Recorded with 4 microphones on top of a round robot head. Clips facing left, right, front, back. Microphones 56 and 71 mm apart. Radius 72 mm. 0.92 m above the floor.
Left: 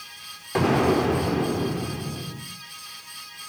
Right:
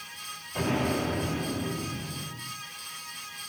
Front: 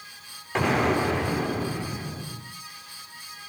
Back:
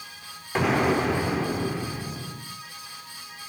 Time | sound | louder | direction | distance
0.6 | an explosion | left 8 dB, back 1 dB | 90° left | 3.5 m